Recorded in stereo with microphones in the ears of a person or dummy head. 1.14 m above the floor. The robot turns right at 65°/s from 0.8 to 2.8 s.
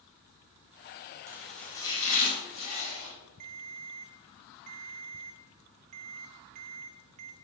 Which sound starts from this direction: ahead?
Chopping, at 1.3 s.